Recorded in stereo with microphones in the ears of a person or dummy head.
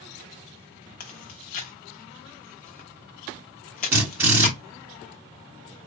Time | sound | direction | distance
1.0 | chewing | 35° left (ahead or behind) | 0.8 m
3.9 | a drill | 15° right (ahead or behind) | 2.5 m